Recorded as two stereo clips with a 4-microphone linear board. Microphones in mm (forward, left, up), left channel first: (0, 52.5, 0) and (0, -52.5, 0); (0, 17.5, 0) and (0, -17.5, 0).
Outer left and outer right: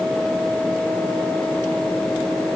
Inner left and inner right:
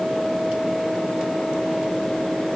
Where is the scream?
No scream in this recording.